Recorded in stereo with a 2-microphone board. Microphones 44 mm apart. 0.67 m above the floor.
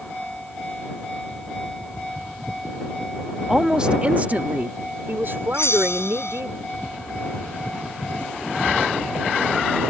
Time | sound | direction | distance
3.5 | a woman speaking | 5° right (ahead or behind) | ?
5.5 | a bell | 85° left | ?